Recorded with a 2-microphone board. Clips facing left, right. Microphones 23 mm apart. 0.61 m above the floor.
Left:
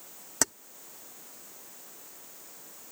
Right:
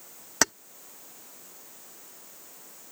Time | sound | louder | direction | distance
0.4 | keys jangling | right 5 dB | 35° right (ahead or behind) | ?